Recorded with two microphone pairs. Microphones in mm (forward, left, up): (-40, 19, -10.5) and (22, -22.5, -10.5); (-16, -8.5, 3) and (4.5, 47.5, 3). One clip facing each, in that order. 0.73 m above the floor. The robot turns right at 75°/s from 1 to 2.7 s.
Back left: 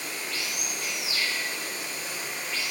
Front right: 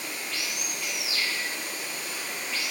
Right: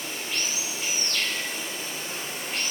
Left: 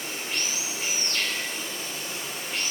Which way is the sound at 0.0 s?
125° left.